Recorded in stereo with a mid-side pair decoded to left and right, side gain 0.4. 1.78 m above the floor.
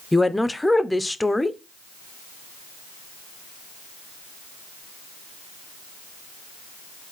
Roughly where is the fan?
No fan in this recording.